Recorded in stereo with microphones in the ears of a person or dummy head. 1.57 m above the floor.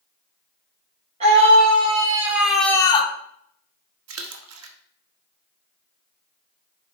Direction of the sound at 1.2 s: 35° right (ahead or behind).